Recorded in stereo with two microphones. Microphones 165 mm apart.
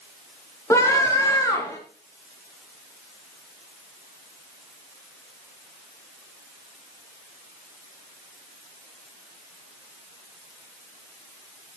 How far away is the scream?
About 3 m.